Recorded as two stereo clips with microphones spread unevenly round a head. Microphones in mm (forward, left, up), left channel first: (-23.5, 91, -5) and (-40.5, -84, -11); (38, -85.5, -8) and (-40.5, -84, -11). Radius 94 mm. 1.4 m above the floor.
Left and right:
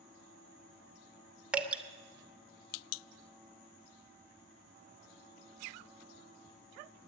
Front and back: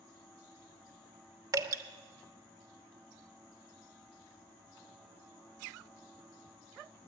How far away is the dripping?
About 1.0 m.